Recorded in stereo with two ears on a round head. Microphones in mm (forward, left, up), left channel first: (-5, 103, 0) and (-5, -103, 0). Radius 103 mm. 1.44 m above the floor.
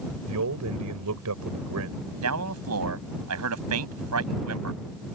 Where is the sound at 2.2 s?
75° right (ahead or behind).